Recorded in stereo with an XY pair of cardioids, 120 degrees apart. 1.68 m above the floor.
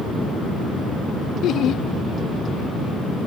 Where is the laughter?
60° left.